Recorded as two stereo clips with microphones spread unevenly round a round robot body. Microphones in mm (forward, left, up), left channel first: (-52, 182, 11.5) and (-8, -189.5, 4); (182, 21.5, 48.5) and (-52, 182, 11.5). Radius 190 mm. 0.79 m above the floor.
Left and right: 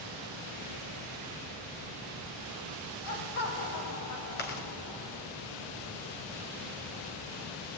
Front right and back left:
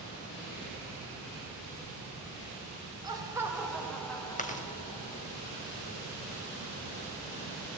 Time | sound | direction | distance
3.0 | laughter | 70° left | 4.5 m
4.4 | chewing | 30° left | 3 m